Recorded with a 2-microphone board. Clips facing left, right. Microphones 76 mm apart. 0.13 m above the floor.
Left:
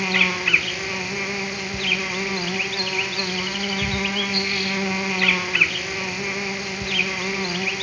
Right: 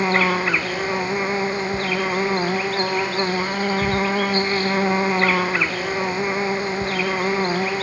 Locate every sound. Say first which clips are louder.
0.0 s an insect: right 5 dB; 35° right (ahead or behind), 0.8 m